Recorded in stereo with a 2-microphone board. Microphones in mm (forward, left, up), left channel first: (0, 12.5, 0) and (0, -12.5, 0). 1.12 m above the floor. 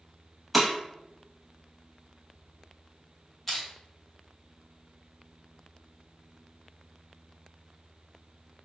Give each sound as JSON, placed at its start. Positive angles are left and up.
{"t": 0.5, "sound": "breaking glass", "side_deg": -5, "distance_m": 0.6}
{"t": 3.5, "sound": "crushing", "side_deg": 5, "distance_m": 1.0}